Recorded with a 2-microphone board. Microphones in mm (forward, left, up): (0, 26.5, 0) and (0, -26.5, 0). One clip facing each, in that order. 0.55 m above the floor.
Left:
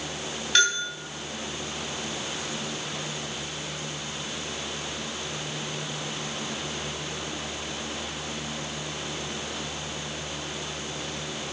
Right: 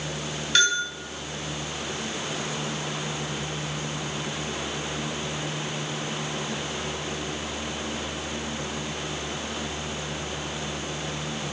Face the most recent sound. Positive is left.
turn(degrees=5)  # may be behind; listen again after turning